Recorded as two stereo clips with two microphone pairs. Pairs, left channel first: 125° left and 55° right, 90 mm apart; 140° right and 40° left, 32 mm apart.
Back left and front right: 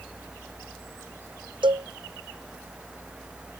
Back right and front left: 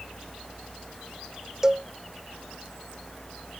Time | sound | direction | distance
1.6 | a cowbell | 30° right | ?